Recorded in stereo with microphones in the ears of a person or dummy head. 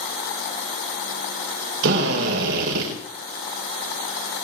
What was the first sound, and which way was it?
A drill, 55° right (ahead or behind).